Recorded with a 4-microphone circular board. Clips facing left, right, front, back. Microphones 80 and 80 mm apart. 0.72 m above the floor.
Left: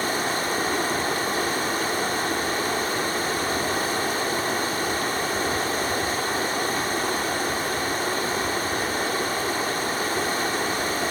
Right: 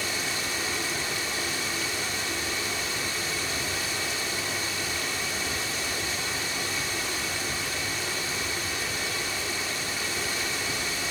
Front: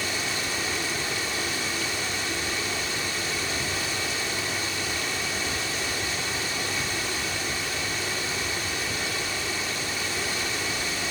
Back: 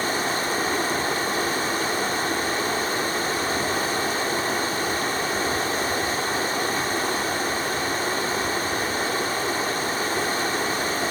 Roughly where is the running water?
Behind left.